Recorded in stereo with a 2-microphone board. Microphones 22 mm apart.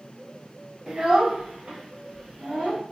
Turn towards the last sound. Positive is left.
turn(degrees=-60)  # may be behind; listen again after turning